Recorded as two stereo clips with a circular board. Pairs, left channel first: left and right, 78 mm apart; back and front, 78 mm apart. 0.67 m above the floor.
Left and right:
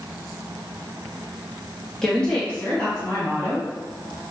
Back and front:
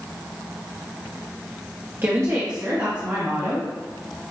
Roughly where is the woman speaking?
Ahead.